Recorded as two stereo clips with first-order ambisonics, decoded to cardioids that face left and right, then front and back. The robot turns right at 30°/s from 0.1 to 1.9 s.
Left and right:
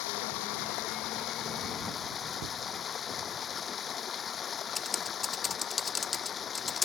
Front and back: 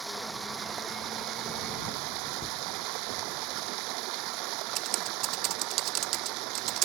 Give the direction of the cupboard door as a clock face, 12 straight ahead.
2 o'clock.